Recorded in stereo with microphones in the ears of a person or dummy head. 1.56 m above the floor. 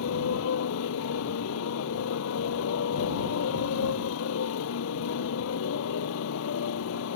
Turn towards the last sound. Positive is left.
turn(degrees=70)  # may be behind; listen again after turning